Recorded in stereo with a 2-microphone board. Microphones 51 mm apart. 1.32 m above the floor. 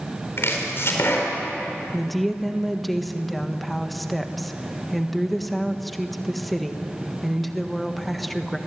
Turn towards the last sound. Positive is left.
turn(degrees=0)  # may be behind; listen again after turning